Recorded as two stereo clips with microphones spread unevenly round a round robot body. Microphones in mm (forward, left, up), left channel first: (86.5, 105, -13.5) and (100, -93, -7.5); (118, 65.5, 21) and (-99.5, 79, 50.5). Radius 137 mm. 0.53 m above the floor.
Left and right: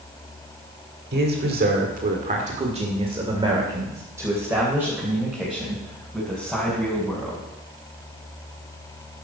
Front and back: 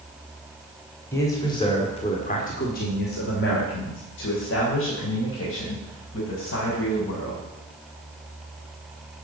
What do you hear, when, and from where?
1.1 s a man speaking: 75° right, 1.9 m; by 7.4 s 5° left, 4.5 m